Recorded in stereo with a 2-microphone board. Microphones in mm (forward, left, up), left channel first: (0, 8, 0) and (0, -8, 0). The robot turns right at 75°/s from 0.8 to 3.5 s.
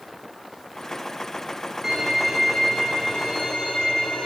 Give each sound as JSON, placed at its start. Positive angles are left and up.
{"t": 1.8, "sound": "a violin", "azimuth_deg": -35, "distance_m": 7.0}